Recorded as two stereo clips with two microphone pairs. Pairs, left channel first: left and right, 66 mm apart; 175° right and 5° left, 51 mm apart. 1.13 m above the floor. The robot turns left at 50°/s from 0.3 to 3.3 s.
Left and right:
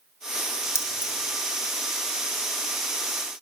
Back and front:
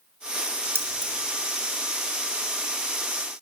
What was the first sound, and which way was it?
Keys jangling, 45° left.